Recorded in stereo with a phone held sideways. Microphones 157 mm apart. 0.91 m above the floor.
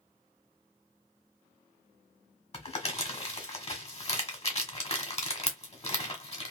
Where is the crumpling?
40° left (ahead or behind), 1.2 m.